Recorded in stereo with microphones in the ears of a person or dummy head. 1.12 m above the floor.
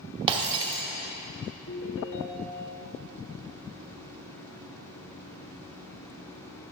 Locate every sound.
0.3 s breaking glass: 30° right (ahead or behind), 1.0 m
1.7 s a ringtone: 65° left (ahead or behind), 1.3 m